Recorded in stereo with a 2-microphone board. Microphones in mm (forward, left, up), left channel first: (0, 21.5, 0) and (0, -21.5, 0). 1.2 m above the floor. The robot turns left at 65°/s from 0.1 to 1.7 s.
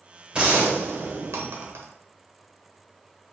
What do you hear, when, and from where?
0.3 s a gunshot: 25° right, 0.8 m; by 1.9 s 110° right, 0.8 m